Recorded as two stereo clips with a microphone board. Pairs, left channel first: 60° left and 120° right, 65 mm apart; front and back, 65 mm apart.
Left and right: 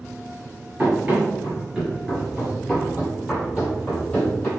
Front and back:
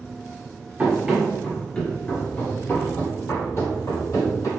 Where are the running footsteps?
150° right, 1.7 m; by 4.5 s 15° right, 3.5 m.